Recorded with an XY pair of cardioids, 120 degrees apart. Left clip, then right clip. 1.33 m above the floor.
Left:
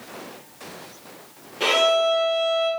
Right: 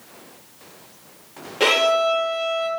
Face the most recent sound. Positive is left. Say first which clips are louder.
# right 1 dB
turn(degrees=-45)